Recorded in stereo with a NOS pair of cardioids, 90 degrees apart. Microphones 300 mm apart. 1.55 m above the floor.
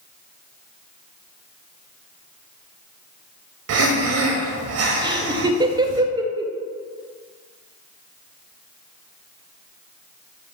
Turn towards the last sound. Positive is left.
turn(degrees=-15)